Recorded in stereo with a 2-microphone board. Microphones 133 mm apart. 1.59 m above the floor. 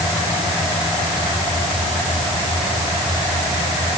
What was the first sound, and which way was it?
Only background noise.